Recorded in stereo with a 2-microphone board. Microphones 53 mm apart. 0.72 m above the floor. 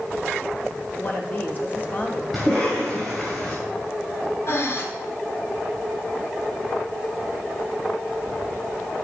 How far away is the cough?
About 3 m.